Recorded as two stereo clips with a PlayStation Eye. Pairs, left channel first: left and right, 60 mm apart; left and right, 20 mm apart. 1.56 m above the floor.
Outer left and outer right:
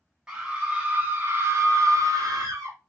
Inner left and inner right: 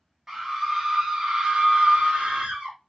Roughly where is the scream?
Centre.